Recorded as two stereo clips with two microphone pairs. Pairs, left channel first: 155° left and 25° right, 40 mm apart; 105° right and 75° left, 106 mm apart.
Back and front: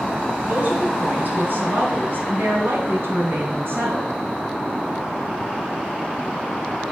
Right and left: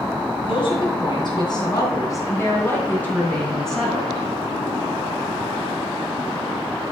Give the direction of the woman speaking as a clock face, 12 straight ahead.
2 o'clock.